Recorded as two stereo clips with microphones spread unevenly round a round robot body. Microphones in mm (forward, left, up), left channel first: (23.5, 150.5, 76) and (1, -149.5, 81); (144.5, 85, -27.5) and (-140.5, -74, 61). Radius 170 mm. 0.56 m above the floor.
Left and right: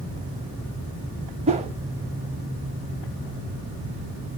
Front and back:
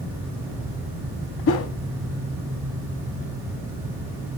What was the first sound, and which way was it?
A whoosh, 25° right.